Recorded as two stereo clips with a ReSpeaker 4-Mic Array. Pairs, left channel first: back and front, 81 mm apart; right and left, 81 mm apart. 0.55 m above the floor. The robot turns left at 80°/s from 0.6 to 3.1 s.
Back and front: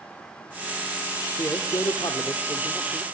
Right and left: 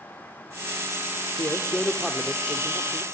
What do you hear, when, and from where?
1.4 s a man speaking: 130° right, 1.4 m; by 3.0 s 100° left, 1.4 m